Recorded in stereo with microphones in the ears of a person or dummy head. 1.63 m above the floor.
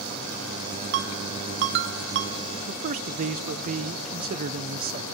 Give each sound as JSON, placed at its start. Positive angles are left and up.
{"t": 0.9, "sound": "a ringtone", "side_deg": -60, "distance_m": 1.1}
{"t": 2.7, "sound": "a man speaking", "side_deg": -40, "distance_m": 0.7}